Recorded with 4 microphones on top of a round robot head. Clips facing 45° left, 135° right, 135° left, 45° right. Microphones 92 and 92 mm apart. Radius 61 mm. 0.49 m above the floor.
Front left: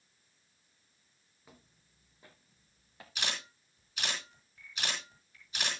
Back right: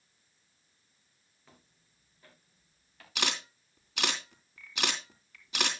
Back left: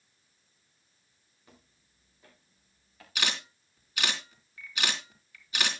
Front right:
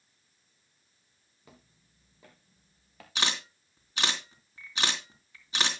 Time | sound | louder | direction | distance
1.4 | footsteps | front left 2 dB, front right 3 dB | 35° right | 4 m
3.1 | a camera shutter | back right 5 dB, front right 1 dB | 110° right | 3.5 m